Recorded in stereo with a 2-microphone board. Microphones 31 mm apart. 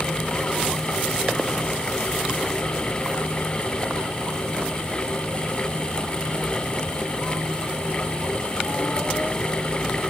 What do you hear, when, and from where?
Only background noise.